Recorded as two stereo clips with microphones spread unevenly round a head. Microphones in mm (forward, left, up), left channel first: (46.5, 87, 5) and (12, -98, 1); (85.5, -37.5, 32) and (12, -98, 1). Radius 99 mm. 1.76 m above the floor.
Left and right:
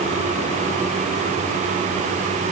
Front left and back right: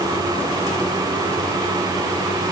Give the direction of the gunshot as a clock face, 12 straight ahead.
No gunshot in this recording.